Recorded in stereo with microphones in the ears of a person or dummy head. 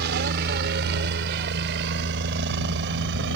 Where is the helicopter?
55° right (ahead or behind); by 3.4 s 60° right (ahead or behind).